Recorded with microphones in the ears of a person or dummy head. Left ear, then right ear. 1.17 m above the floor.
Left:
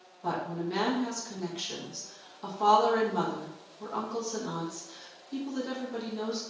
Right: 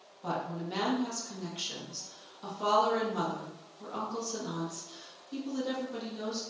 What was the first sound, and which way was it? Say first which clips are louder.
A woman speaking: left 3 dB; centre (ahead or behind).